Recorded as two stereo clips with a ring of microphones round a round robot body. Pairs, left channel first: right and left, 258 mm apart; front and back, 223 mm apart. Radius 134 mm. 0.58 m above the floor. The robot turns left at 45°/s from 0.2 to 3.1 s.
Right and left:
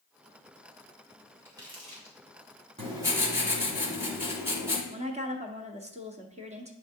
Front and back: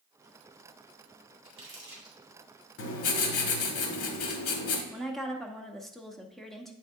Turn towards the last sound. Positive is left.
turn(degrees=85)